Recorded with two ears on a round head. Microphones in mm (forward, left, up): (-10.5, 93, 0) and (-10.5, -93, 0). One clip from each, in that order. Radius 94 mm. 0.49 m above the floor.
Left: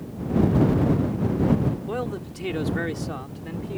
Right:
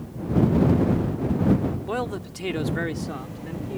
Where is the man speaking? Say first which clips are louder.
Right 1 dB; 30° right (ahead or behind); by 3.8 s 15° left (ahead or behind).